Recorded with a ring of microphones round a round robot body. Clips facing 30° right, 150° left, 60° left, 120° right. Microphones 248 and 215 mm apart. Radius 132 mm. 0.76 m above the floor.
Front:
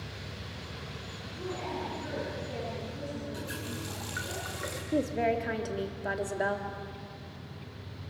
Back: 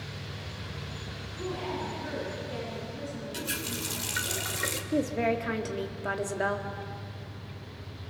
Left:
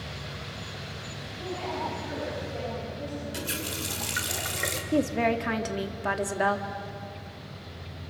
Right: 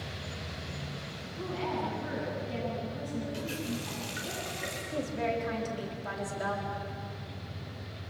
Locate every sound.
1.4 s a woman speaking: 120° right, 8.5 m
3.3 s a running tap: 100° left, 2.0 m
4.9 s a woman speaking: 65° left, 1.6 m